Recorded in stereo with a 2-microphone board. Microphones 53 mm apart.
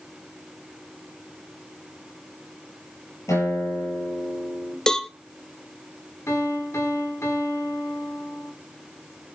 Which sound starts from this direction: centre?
A cowbell, at 4.9 s.